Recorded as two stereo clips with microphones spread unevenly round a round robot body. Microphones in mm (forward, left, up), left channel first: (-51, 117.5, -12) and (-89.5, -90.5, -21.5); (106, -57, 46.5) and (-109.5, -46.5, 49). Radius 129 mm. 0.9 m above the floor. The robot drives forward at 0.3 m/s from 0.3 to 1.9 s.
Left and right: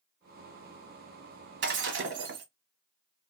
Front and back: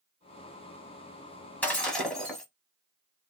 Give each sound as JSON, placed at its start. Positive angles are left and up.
{"t": 1.6, "sound": "breaking glass", "azimuth_deg": -85, "distance_m": 1.1}